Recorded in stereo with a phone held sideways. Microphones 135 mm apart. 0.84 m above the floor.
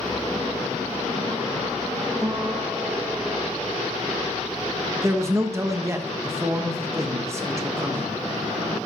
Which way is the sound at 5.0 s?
20° right (ahead or behind).